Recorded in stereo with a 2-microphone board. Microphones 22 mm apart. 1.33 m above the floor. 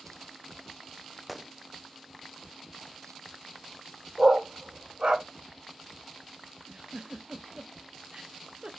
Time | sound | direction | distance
1.3 | a gunshot | 5° right (ahead or behind) | 0.5 m
4.2 | a dog barking | 50° right (ahead or behind) | 1.8 m
6.7 | a giggle | 40° right (ahead or behind) | 1.1 m